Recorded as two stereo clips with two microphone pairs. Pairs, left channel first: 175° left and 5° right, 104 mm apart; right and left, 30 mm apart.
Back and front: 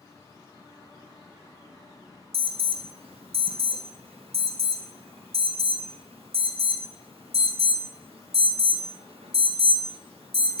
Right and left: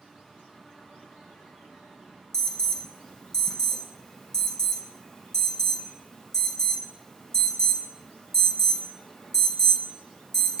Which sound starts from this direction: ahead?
An alarm, at 2.3 s.